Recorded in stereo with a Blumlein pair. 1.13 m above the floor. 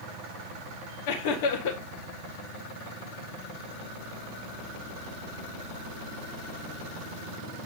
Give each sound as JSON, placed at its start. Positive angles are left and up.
{"t": 1.1, "sound": "laughter", "azimuth_deg": 50, "distance_m": 1.6}